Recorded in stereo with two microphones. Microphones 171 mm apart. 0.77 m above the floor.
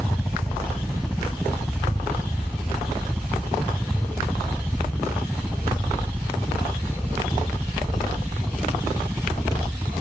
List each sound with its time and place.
0.0 s a helicopter: centre (ahead or behind); by 10.0 s 15° right (ahead or behind)